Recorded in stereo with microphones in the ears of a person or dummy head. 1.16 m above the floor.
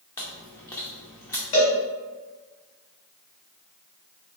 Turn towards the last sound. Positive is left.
turn(degrees=35)  # may be behind; listen again after turning